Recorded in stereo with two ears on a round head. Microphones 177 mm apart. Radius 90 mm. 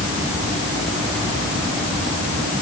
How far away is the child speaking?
I don't hear a child speaking.